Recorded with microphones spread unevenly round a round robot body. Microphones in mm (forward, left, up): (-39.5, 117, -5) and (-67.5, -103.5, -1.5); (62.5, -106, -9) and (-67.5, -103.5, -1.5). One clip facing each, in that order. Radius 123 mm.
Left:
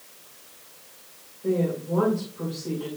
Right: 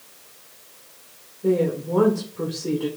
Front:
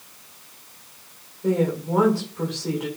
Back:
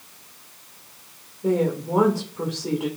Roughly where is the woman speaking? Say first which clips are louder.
Right 4 dB, even; right.